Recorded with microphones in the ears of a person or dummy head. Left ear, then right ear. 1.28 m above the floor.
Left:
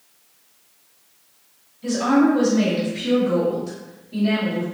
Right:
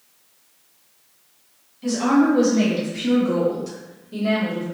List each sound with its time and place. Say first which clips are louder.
1.8 s a woman speaking: even; 55° right (ahead or behind), 1.8 m